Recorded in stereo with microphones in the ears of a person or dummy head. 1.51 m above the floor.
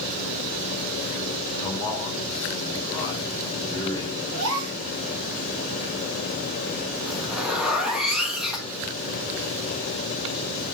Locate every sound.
1.6 s a man speaking: 30° left (ahead or behind), 1.9 m
4.3 s a gasp: 75° right (ahead or behind), 3 m
7.1 s a zipper: 5° right (ahead or behind), 1.2 m